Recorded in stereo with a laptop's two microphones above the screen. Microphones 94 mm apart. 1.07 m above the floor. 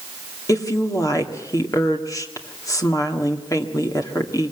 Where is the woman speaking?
35° left (ahead or behind), 2 m.